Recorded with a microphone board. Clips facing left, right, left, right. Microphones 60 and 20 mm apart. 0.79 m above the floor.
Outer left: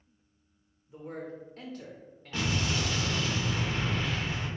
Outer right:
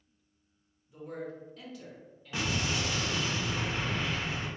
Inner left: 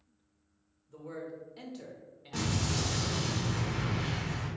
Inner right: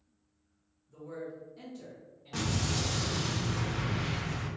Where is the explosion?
10° right (ahead or behind), 1.0 m.